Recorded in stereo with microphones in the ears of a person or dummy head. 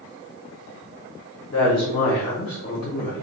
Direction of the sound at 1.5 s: 40° left (ahead or behind).